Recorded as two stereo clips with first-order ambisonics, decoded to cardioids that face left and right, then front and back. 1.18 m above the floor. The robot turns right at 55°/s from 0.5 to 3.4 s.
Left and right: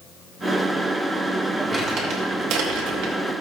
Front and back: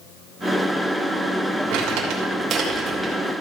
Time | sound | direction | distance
1.7 | crumpling | 170° right | 3 m